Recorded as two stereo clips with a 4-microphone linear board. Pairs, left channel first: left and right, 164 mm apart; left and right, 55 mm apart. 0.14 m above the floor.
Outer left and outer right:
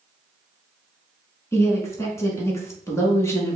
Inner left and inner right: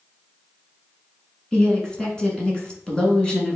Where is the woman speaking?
15° left (ahead or behind), 1.4 m.